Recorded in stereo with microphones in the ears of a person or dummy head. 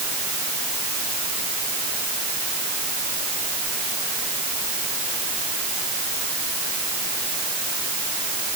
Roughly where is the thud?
I don't hear a thud.